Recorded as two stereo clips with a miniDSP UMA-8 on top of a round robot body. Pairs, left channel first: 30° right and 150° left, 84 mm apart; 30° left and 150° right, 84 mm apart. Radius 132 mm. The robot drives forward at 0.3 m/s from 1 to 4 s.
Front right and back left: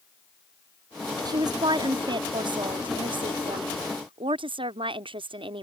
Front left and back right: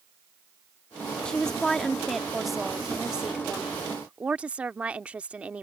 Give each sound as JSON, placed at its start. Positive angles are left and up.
{"t": 1.2, "sound": "a woman speaking", "azimuth_deg": 110}